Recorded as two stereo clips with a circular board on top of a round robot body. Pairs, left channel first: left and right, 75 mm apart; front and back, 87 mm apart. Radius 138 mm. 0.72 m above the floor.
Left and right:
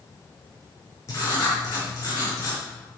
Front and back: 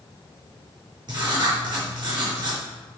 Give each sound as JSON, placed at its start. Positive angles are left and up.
{"t": 1.1, "sound": "writing", "azimuth_deg": 140, "distance_m": 4.5}